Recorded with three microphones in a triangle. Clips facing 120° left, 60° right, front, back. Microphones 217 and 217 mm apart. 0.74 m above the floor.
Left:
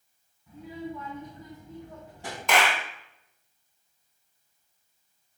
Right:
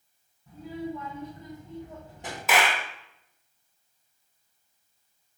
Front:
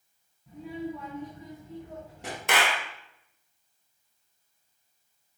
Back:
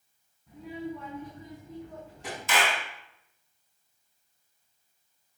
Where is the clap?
25° left, 1.5 m.